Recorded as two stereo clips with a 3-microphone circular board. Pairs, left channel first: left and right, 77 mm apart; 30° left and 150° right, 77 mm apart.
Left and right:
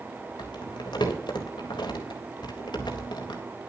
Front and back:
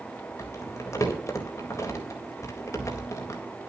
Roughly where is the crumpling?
Left.